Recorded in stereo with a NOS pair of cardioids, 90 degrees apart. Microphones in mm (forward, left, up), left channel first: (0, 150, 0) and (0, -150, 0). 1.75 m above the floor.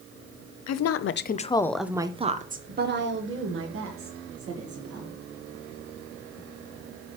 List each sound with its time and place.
0.7 s a woman speaking: 65° left, 0.8 m; by 5.2 s 50° right, 2.5 m